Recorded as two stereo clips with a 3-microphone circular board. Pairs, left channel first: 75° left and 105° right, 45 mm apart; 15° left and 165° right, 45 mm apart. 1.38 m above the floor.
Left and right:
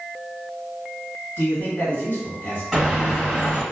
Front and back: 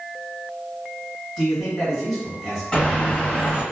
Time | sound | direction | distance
1.4 | a man speaking | 105° left | 1.8 m
2.7 | a bird | 15° right | 1.3 m